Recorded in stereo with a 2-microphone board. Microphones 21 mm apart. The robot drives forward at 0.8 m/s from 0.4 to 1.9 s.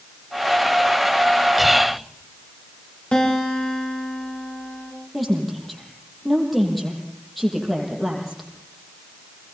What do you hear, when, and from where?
1.6 s whispering: 5° right (ahead or behind), 1.6 m
3.1 s a guitar: 55° left (ahead or behind), 9 m
5.1 s a woman speaking: centre (ahead or behind), 8 m